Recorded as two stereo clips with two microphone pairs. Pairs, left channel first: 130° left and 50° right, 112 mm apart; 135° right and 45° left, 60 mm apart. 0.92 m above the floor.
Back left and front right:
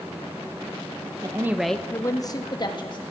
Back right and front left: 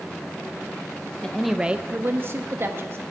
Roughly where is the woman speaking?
Right.